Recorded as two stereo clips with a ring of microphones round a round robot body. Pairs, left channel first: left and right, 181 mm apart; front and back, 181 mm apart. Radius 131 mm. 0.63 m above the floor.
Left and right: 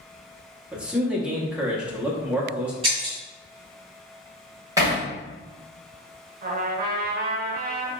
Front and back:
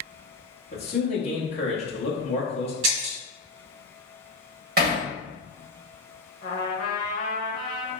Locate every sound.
0.7 s a man speaking: 10° right, 1.0 m
2.8 s breaking glass: 160° right, 1.5 m
4.8 s hammering: 160° right, 1.3 m
6.4 s a trumpet: 55° right, 0.7 m